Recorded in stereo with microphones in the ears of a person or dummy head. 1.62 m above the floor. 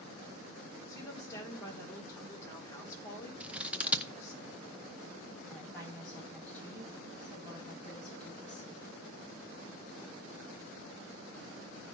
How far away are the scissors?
About 0.7 m.